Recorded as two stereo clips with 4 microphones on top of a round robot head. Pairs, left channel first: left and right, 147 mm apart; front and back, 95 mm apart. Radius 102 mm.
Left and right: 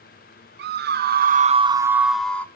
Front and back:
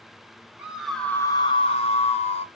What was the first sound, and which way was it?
A scream, 100° right.